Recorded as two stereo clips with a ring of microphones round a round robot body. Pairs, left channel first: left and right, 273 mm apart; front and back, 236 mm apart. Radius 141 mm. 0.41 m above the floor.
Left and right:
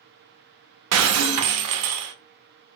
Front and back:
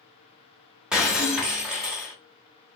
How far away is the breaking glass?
About 0.5 m.